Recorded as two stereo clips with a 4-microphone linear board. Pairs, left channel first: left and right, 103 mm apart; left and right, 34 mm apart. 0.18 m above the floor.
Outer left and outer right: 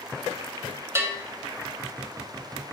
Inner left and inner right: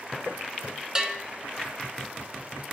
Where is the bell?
20° right (ahead or behind), 0.9 m.